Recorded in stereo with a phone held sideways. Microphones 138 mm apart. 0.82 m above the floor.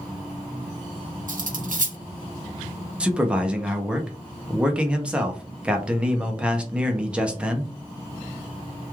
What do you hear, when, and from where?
1.3 s cutlery clinking: 75° right (ahead or behind), 0.6 m
3.0 s a man speaking: 10° right (ahead or behind), 0.7 m